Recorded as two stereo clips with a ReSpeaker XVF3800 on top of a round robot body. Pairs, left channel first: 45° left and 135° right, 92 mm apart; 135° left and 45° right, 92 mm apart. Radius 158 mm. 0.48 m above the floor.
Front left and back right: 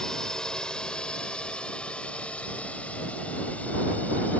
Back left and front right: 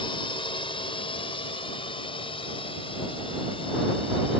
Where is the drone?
125° left; by 4.4 s 120° left.